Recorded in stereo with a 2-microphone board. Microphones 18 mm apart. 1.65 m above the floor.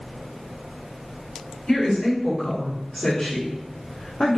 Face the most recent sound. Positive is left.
turn(degrees=80)